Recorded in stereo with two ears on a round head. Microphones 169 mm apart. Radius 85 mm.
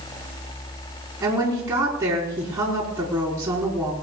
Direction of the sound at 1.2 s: 10° right (ahead or behind).